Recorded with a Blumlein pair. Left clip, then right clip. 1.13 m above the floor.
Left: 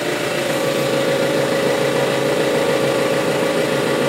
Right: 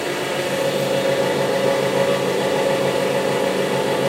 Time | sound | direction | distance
0.0 | an engine running | 70° left | 4.5 m